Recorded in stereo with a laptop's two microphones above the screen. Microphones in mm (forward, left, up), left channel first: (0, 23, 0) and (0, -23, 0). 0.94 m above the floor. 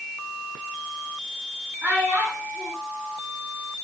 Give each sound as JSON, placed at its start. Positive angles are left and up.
{"t": 1.8, "sound": "a child speaking", "side_deg": -50, "distance_m": 6.5}